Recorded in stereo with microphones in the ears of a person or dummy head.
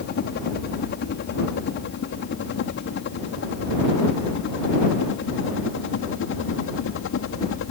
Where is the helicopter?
45° left (ahead or behind); by 7.7 s 60° left (ahead or behind).